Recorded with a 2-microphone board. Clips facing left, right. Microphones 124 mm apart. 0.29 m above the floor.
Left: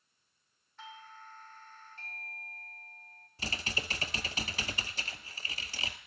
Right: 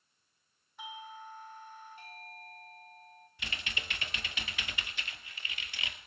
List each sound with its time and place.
0.8 s a doorbell: 15° right (ahead or behind), 1.4 m
3.4 s typing on a keyboard: 35° left (ahead or behind), 1.5 m